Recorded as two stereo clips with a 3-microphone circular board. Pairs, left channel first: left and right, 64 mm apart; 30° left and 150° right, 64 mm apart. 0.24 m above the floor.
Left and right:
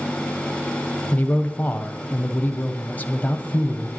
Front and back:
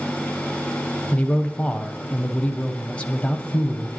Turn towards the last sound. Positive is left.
turn(degrees=75)